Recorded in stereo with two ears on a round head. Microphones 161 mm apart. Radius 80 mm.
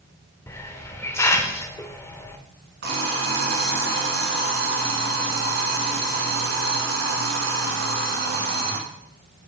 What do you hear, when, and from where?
0.5 s a hiss: 15° left (ahead or behind), 0.6 m
2.8 s an alarm clock: 65° right (ahead or behind), 1.9 m